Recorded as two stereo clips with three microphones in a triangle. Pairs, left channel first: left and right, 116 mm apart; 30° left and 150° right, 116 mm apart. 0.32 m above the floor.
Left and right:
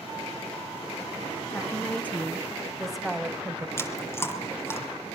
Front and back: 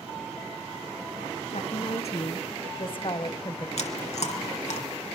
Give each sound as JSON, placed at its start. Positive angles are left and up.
{"t": 1.5, "sound": "a woman speaking", "azimuth_deg": 20, "distance_m": 4.0}
{"t": 3.8, "sound": "chewing", "azimuth_deg": 20, "distance_m": 4.5}